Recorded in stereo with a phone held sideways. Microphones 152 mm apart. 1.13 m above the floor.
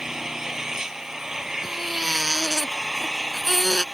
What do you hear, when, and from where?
0.0 s an engine running: 5° right (ahead or behind)
1.6 s a baby crying: centre (ahead or behind)